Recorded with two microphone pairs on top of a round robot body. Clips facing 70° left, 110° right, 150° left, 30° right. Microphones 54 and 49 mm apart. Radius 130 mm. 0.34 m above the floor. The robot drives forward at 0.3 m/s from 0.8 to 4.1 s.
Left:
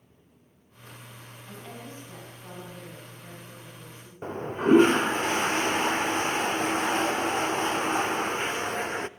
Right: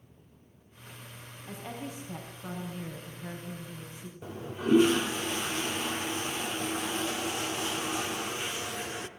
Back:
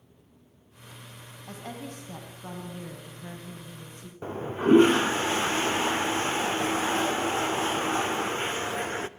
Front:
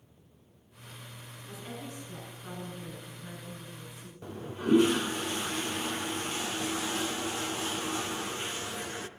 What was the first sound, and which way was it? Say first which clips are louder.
A woman speaking: right 3 dB, back 3 dB; 175° left.